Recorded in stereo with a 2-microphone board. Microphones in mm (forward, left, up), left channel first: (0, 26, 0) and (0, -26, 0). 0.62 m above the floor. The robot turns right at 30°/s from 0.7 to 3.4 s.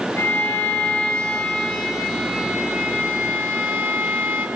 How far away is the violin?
About 5 m.